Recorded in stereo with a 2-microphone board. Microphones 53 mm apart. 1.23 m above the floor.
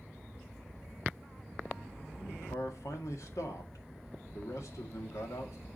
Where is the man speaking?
75° left (ahead or behind), 2 m.